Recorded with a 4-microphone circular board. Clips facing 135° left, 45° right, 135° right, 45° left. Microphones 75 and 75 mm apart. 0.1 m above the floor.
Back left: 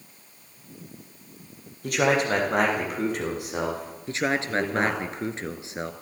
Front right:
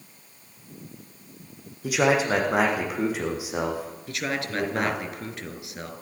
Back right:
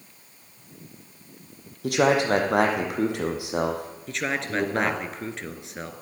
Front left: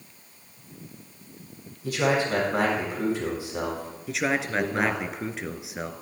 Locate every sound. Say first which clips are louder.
1.8 s a man speaking: front right 1 dB, back right 4 dB; 130° right, 4 m
4.1 s a man speaking: back left 5 dB, front left 2 dB; 125° left, 1.5 m